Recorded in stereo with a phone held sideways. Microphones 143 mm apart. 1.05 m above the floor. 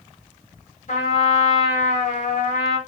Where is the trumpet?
60° left (ahead or behind), 1.0 m.